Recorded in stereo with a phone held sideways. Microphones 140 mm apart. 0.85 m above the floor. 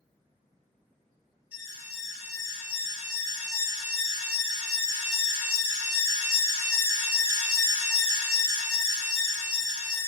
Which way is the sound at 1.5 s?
15° right (ahead or behind).